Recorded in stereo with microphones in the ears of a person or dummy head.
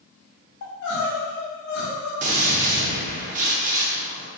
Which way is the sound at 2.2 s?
40° right (ahead or behind).